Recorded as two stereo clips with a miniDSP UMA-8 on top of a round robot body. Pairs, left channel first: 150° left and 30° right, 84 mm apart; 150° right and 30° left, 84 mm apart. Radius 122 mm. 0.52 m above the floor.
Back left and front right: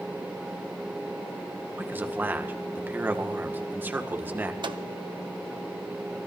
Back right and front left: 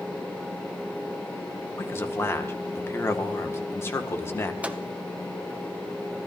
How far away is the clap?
I don't hear a clap.